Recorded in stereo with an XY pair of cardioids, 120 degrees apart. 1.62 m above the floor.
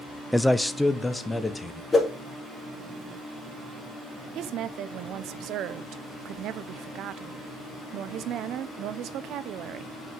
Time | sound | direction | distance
0.3 | a man speaking | 5° left | 0.5 m
1.9 | a whoosh | 15° left | 2.5 m
4.3 | a woman speaking | 65° right | 0.7 m